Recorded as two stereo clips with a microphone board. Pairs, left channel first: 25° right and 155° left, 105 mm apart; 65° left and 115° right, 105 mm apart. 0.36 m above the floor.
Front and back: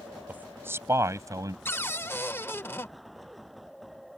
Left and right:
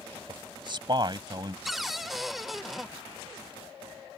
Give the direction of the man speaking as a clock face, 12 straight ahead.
4 o'clock.